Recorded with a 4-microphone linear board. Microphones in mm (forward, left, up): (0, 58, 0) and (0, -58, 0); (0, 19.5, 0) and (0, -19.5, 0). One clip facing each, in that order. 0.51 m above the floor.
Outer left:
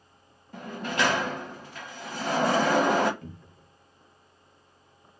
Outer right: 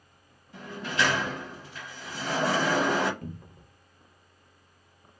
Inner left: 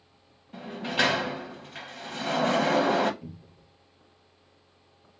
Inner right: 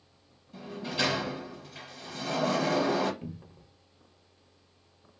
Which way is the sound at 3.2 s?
45° right (ahead or behind).